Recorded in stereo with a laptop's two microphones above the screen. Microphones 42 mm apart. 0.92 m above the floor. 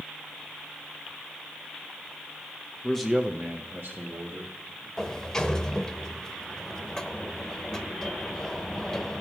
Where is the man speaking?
15° left (ahead or behind), 0.7 m; by 4.9 s 75° right (ahead or behind), 2.5 m.